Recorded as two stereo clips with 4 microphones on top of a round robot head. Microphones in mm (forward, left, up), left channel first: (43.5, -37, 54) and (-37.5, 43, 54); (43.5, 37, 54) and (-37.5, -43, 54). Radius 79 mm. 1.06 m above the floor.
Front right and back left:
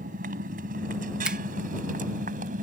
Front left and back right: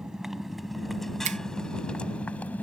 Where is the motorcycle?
140° left; by 2.6 s 120° left.